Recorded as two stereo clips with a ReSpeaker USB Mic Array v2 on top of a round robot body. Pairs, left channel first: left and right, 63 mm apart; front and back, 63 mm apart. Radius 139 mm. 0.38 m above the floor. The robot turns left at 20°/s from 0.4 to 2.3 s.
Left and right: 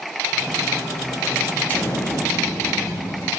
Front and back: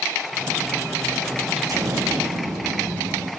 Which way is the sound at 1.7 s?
150° left.